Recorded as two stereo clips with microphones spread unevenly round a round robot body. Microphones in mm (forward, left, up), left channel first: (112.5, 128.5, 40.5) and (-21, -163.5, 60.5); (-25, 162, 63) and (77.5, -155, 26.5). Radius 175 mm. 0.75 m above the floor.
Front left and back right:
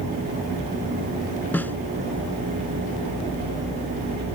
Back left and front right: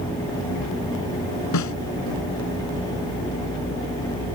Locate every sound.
1.5 s a snare drum: 150° left